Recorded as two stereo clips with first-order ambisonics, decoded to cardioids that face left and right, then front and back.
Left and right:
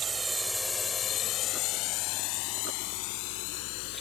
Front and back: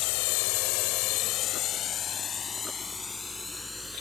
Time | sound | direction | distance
0.0 | a drone | 15° right | ?